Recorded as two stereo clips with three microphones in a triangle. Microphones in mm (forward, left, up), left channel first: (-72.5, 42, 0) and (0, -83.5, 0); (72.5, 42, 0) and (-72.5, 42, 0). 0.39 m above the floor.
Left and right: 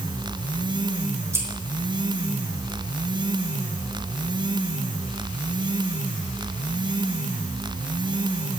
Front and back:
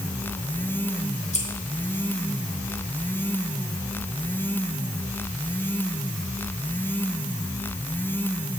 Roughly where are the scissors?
Ahead.